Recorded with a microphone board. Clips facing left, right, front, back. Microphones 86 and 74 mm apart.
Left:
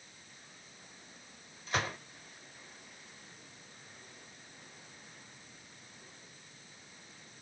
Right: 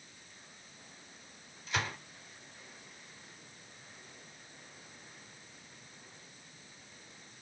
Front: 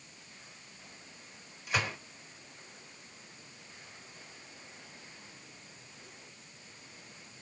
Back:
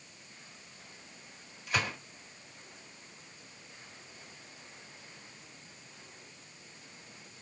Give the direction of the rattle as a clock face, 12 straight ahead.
I don't hear a rattle.